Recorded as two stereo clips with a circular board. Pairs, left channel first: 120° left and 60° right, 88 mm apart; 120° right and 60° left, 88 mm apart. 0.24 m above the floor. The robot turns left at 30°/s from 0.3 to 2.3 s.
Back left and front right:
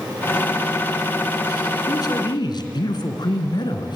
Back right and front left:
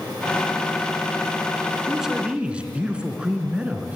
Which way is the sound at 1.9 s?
150° left.